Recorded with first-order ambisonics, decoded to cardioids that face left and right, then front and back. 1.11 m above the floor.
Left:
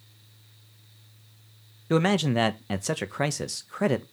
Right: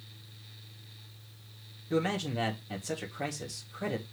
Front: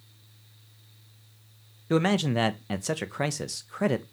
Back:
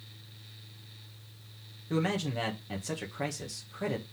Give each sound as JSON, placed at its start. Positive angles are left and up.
{"t": 1.9, "sound": "a man speaking", "azimuth_deg": 55, "distance_m": 0.9}